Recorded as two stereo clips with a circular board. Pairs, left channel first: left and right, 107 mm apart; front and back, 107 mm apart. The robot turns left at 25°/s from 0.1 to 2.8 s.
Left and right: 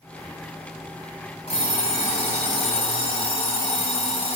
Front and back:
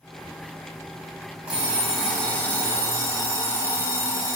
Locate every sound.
1.5 s an alarm clock: 100° left, 1.6 m; by 4.4 s 70° left, 1.6 m